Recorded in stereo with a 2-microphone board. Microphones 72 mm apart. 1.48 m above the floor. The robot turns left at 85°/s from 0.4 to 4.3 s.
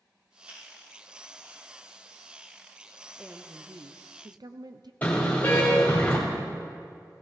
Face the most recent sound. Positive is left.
turn(degrees=20)  # may be behind; listen again after turning